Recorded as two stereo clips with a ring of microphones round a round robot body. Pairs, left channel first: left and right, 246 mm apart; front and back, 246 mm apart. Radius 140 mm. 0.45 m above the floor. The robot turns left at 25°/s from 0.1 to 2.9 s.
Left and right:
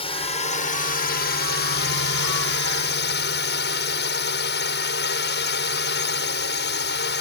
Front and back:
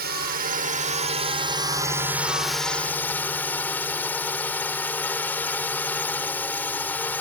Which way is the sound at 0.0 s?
150° left.